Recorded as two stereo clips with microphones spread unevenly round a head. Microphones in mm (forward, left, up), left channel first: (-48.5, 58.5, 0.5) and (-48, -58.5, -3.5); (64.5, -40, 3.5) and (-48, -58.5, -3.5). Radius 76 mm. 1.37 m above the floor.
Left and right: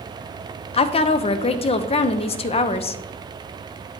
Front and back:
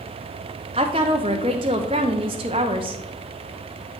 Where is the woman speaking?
130° left, 0.5 m.